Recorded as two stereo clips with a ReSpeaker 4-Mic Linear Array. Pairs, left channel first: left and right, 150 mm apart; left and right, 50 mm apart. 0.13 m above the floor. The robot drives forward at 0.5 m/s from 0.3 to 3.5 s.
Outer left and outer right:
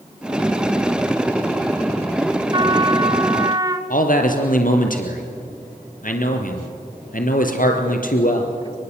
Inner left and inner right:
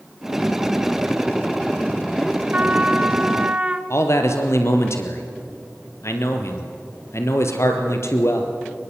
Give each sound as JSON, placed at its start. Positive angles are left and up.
{"t": 2.5, "sound": "a trumpet", "side_deg": -30, "distance_m": 1.0}
{"t": 3.9, "sound": "a man speaking", "side_deg": 65, "distance_m": 3.0}